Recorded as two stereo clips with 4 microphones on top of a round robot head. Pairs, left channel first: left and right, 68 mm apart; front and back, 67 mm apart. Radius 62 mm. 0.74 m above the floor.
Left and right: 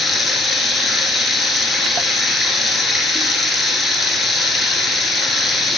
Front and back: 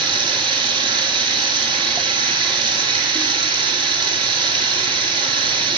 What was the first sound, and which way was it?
Running water, straight behind.